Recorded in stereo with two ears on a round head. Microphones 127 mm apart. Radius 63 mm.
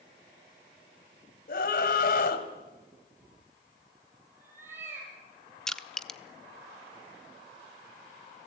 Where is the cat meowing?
15° right (ahead or behind), 6 m.